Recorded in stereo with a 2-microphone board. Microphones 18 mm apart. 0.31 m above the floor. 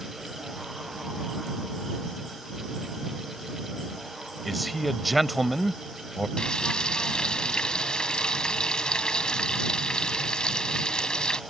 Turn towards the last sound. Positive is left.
turn(degrees=55)  # may be behind; listen again after turning